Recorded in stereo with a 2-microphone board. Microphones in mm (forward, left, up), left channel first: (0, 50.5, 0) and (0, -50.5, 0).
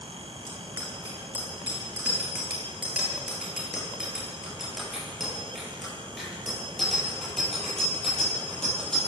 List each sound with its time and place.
0.5 s a bicycle bell: 25° right (ahead or behind), 9 m; by 9.1 s 10° left (ahead or behind), 17.5 m